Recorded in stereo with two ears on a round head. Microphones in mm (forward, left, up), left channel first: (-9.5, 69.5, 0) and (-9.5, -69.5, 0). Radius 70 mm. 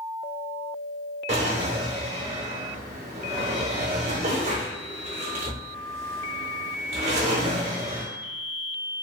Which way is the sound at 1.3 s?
45° right (ahead or behind).